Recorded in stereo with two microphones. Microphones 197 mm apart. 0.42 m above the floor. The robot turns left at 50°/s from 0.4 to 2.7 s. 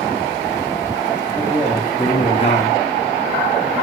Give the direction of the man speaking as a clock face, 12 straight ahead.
5 o'clock.